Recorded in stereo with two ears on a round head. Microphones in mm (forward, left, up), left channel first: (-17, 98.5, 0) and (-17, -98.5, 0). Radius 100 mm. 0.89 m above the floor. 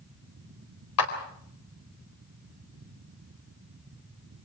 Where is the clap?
80° left, 4 m.